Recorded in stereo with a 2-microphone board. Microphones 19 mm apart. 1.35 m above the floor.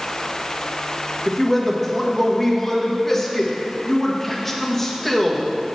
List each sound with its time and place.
1.3 s a man speaking: 15° left (ahead or behind), 1.5 m